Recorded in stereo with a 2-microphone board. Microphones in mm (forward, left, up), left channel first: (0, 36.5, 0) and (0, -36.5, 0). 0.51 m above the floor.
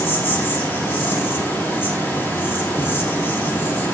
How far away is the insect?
About 5 m.